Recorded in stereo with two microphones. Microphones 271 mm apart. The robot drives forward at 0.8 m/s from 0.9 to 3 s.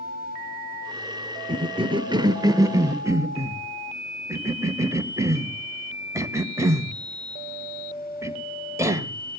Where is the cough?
15° right (ahead or behind), 0.9 m; by 9.2 s 10° right (ahead or behind), 1.4 m.